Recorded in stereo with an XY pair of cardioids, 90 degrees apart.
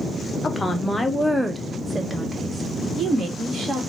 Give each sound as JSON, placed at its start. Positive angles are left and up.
{"t": 0.4, "sound": "a woman speaking", "azimuth_deg": 35, "distance_m": 0.8}